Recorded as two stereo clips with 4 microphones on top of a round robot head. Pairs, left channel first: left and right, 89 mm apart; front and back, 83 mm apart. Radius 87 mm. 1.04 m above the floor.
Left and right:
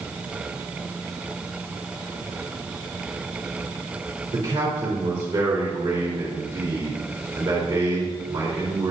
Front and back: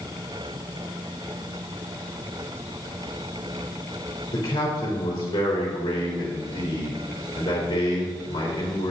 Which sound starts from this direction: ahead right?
A man speaking, at 4.3 s.